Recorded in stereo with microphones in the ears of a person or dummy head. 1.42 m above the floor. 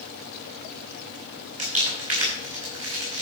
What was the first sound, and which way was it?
Crumpling, 45° right (ahead or behind).